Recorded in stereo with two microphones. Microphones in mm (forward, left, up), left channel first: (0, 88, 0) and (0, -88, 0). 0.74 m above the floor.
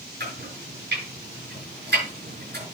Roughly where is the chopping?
Right.